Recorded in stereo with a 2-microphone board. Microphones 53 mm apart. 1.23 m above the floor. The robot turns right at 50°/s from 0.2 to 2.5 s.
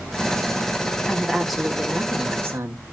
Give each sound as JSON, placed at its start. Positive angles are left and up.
{"t": 1.1, "sound": "a woman speaking", "azimuth_deg": 155, "distance_m": 1.6}